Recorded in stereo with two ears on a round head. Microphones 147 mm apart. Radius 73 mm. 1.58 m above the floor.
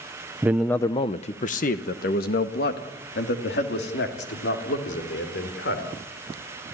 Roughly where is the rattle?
I don't hear a rattle.